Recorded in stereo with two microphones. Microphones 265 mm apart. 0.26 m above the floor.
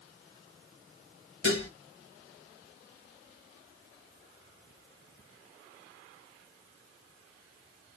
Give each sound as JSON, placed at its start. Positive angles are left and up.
{"t": 1.4, "sound": "dishes clattering", "side_deg": 45, "distance_m": 0.9}